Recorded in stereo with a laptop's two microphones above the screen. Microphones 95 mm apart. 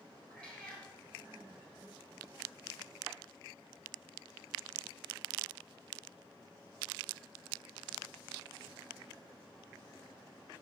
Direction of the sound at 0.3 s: 10° left (ahead or behind).